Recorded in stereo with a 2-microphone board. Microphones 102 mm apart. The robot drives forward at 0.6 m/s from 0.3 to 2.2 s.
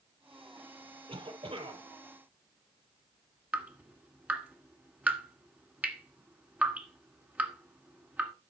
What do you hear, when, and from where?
1.1 s a cough: 65° right (ahead or behind), 4 m
3.5 s dripping: 15° right (ahead or behind), 1.8 m